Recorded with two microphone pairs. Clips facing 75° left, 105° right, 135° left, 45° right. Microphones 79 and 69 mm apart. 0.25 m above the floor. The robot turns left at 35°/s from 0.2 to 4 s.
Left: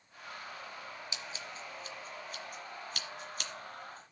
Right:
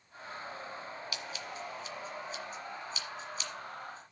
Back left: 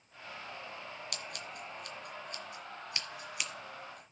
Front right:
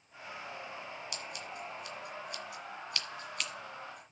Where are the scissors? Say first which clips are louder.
Right 3 dB, front right 1 dB; 135° left, 1.7 m; by 4.1 s 35° left, 1.7 m.